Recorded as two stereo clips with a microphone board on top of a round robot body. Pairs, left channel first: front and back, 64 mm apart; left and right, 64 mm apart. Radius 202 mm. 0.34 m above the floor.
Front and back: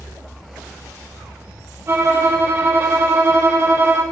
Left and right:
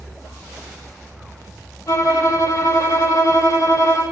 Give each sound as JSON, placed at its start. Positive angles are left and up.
{"t": 1.9, "sound": "a violin", "azimuth_deg": 130, "distance_m": 5.0}